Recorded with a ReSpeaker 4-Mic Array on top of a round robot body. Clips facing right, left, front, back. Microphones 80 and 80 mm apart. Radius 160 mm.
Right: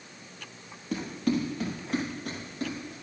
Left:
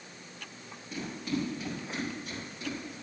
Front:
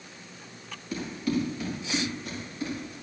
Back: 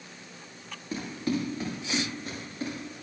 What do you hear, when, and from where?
0.9 s running footsteps: 120° right, 5.5 m; by 2.9 s 130° right, 8.5 m